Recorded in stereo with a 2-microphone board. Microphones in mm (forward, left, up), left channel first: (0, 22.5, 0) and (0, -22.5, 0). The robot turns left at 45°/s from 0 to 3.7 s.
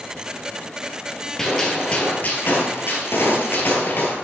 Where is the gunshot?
170° left, 2.5 m; by 4.2 s 65° left, 2.5 m.